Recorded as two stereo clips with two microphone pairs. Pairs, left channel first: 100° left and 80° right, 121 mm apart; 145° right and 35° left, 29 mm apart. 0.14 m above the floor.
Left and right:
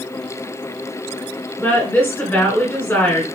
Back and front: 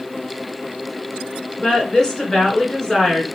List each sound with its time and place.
1.6 s a woman speaking: 155° left, 1.7 m